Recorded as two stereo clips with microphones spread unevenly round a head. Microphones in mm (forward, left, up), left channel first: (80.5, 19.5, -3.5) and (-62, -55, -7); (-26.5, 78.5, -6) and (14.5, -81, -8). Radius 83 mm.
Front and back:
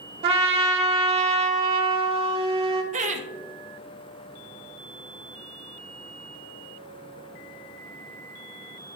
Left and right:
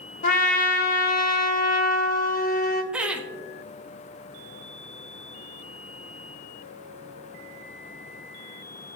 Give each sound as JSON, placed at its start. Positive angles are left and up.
{"t": 0.2, "sound": "a trumpet", "azimuth_deg": 150, "distance_m": 0.9}
{"t": 2.9, "sound": "laughter", "azimuth_deg": -155, "distance_m": 0.6}